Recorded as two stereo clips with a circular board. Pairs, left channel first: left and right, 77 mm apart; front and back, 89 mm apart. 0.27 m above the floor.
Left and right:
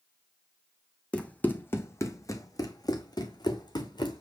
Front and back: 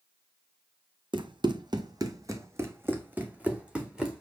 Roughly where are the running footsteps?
Behind.